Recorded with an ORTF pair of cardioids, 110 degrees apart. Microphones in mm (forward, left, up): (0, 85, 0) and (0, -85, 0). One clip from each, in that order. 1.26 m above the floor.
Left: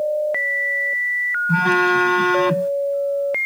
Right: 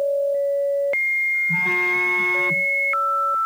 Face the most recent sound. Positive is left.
turn(degrees=55)